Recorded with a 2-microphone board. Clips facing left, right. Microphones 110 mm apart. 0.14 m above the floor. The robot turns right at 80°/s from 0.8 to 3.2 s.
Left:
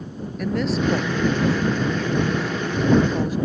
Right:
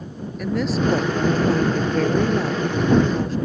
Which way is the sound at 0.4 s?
175° right.